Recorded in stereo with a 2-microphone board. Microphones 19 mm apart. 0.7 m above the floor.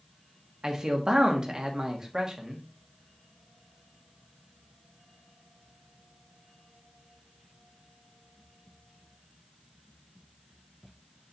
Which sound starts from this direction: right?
A man speaking, at 0.6 s.